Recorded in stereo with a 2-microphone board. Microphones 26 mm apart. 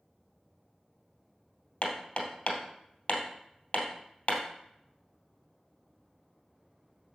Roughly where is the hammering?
Left.